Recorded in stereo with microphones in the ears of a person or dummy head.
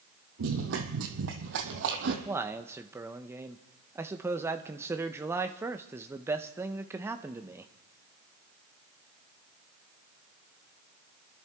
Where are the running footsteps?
55° right (ahead or behind), 2 m; by 2.1 s 60° right (ahead or behind), 2.5 m.